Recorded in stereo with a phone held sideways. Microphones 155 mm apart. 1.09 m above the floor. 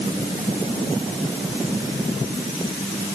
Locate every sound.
Only background noise.